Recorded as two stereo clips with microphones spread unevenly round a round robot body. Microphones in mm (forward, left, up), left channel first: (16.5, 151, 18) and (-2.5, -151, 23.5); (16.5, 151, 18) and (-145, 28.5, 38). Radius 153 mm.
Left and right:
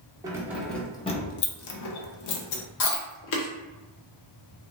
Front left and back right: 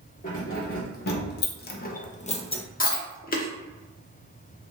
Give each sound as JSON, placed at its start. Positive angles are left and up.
{"t": 0.2, "sound": "keys jangling", "azimuth_deg": -15, "distance_m": 0.8}
{"t": 2.8, "sound": "chewing", "azimuth_deg": 75, "distance_m": 1.0}